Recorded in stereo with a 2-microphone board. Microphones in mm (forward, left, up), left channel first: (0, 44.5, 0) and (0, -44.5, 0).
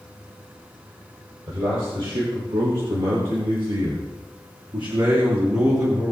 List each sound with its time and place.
1.5 s a man speaking: 80° right, 6.5 m; by 6.1 s 40° right (ahead or behind), 3.5 m